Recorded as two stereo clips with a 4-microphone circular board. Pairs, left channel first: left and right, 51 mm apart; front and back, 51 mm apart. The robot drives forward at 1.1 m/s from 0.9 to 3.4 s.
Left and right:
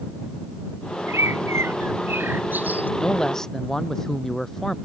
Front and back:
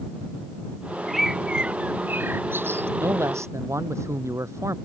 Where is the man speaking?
165° left; by 4.8 s 170° left.